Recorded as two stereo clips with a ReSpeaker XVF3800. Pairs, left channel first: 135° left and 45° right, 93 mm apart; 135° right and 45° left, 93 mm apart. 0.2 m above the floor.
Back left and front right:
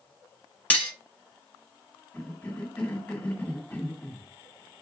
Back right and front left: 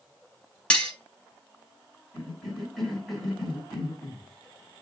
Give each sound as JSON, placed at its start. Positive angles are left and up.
{"t": 0.7, "sound": "cutlery clinking", "azimuth_deg": 170, "distance_m": 0.6}
{"t": 2.1, "sound": "a cough", "azimuth_deg": 135, "distance_m": 1.5}